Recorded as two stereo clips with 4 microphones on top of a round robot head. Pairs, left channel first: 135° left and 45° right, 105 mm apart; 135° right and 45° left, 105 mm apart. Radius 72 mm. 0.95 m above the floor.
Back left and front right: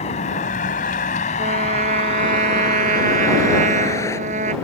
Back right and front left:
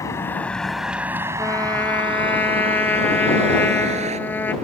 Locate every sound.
0.0 s a vehicle: 165° left; by 4.6 s 65° left
1.4 s a trumpet: 60° right